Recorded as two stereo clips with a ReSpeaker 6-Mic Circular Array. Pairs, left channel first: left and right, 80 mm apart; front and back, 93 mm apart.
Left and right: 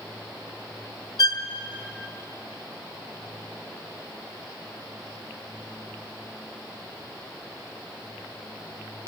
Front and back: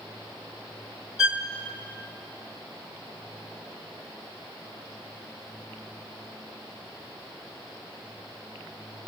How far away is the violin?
About 1.3 m.